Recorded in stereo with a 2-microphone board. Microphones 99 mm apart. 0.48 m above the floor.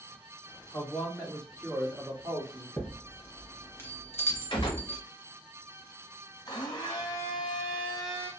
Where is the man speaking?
30° left (ahead or behind), 0.9 m; by 2.7 s 45° right (ahead or behind), 1.1 m.